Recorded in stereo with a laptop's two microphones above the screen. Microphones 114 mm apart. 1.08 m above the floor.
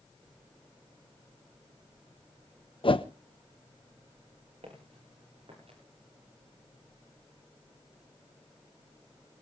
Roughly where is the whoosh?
Left.